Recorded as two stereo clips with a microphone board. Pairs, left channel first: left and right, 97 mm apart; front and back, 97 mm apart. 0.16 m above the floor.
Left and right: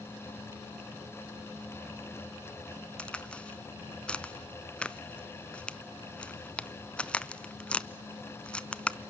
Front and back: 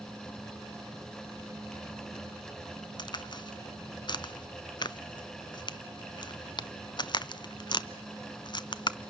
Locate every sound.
3.0 s a crack: 15° left, 0.5 m